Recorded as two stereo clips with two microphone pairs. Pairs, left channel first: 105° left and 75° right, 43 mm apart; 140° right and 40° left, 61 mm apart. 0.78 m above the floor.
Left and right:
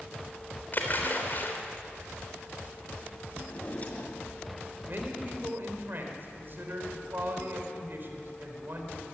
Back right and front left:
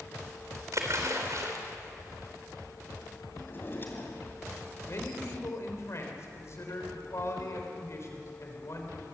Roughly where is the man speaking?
Right.